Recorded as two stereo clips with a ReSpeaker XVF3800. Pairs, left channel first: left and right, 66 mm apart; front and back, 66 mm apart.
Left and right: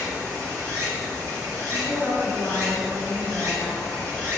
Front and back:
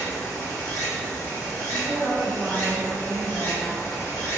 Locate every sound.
0.0 s running water: 60° right, 1.4 m
1.7 s a woman speaking: 135° left, 1.5 m